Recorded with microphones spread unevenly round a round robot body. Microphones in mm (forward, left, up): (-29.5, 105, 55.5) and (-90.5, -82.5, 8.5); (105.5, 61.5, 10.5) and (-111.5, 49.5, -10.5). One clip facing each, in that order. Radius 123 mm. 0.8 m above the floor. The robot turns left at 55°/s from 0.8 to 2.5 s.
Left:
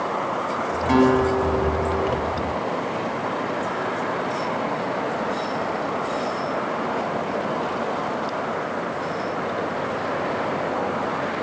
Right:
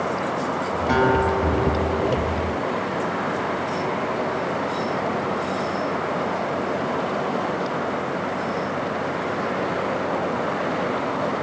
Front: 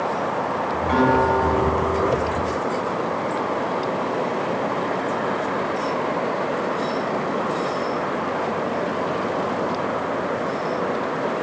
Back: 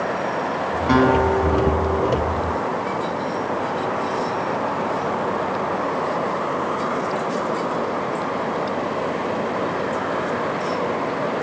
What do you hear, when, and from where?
0.9 s a guitar: 150° left, 7.5 m; by 2.1 s 85° left, 7.5 m